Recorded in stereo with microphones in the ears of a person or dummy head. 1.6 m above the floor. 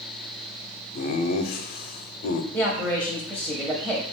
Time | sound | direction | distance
0.9 | laughter | 50° left (ahead or behind) | 0.5 m
2.5 | a man speaking | 10° right (ahead or behind) | 0.7 m